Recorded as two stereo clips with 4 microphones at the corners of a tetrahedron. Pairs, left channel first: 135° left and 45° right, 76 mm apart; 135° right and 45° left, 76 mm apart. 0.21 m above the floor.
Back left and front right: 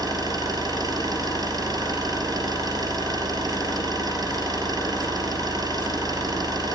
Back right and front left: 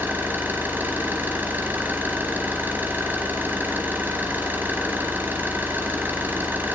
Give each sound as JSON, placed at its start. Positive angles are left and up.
{"t": 0.0, "sound": "an engine running", "azimuth_deg": -15, "distance_m": 3.0}